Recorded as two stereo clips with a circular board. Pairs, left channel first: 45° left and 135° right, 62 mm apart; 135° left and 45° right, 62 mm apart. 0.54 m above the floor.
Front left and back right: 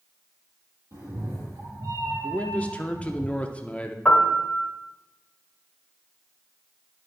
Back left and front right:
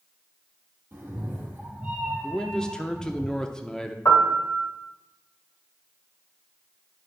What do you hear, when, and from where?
0.9 s a cat meowing: 100° right, 2.5 m; by 3.2 s 120° right, 3 m
2.2 s a man speaking: 70° left, 0.7 m
4.0 s a piano: 115° left, 1.6 m